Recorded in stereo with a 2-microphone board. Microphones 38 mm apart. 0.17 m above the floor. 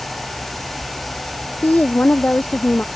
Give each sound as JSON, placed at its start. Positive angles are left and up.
{"t": 1.6, "sound": "a woman speaking", "side_deg": 45}